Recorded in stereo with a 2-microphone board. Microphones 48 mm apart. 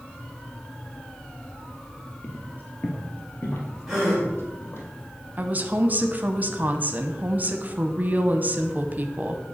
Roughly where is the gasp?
Centre.